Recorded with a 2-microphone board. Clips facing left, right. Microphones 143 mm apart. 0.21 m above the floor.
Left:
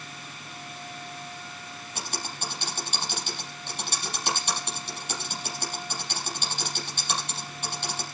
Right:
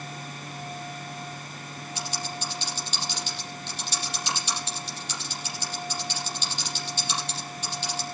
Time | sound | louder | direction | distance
1.9 | typing on a keyboard | right 2 dB | 55° left (ahead or behind) | 5.5 m